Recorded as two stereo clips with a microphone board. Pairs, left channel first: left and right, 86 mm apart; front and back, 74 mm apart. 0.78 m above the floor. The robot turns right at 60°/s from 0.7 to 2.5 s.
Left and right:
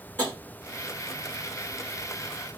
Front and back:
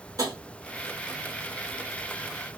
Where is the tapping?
155° left, 1.5 m.